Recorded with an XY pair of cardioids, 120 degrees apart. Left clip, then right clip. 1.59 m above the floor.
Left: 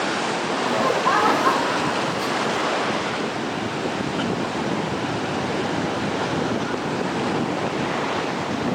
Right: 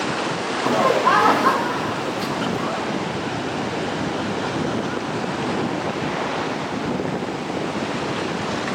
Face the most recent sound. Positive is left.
turn(degrees=-10)